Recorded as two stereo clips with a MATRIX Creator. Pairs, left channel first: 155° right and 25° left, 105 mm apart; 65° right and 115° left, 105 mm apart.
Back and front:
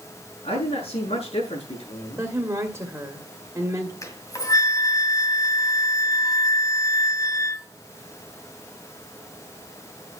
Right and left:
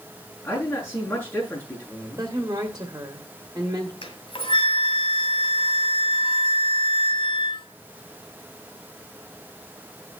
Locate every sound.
0.4 s a man speaking: 145° right, 7 m
2.2 s a woman speaking: 75° left, 1.5 m
4.0 s a flute: 100° right, 2 m